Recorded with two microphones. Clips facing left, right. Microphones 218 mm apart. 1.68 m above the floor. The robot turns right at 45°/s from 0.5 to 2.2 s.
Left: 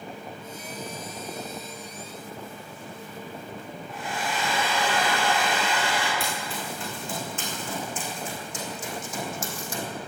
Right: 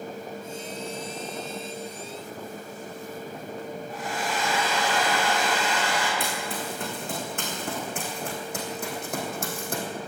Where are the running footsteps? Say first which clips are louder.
Right 2 dB; 55° right (ahead or behind), 5 m.